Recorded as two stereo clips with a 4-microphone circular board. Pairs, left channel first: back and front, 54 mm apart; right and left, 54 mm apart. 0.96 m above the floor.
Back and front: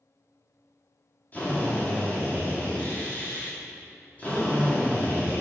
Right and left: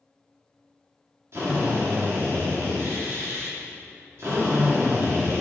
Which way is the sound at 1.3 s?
120° left.